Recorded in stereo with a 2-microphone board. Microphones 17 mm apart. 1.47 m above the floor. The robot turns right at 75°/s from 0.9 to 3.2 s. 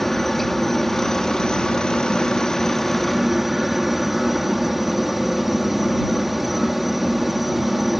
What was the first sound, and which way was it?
A helicopter, 20° left.